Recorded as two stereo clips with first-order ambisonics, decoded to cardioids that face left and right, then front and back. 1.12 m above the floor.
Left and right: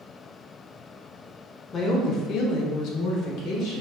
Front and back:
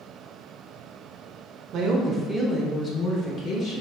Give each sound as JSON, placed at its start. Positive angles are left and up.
{"t": 1.7, "sound": "a woman speaking", "azimuth_deg": 150, "distance_m": 0.6}